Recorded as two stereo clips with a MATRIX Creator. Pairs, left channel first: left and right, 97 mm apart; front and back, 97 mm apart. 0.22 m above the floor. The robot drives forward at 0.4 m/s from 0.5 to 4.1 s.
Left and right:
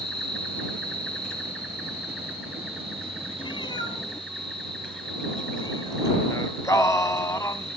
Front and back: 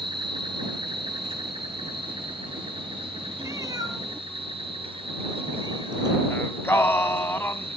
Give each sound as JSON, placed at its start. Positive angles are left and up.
{"t": 0.0, "sound": "an insect", "azimuth_deg": 170, "distance_m": 3.5}
{"t": 3.4, "sound": "a cat meowing", "azimuth_deg": 120, "distance_m": 0.8}
{"t": 6.3, "sound": "singing", "azimuth_deg": 55, "distance_m": 1.0}